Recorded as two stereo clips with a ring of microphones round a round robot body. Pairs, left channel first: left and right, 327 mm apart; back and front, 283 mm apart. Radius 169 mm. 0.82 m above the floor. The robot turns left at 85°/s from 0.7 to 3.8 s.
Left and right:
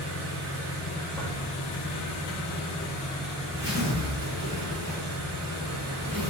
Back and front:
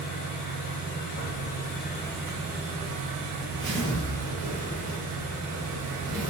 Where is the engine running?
145° right, 1.1 m; by 6.3 s 50° right, 1.1 m.